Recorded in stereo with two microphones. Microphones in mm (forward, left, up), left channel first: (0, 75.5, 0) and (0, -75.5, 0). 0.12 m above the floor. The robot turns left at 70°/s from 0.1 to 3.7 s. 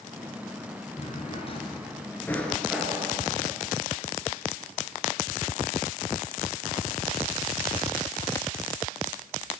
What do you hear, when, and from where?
1.0 s a drawer: 40° left (ahead or behind), 1.1 m; by 3.2 s 25° right (ahead or behind), 1.1 m